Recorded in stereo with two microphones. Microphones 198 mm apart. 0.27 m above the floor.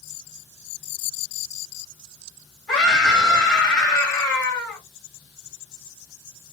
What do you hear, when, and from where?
2.7 s a scream: 5° left (ahead or behind), 1.3 m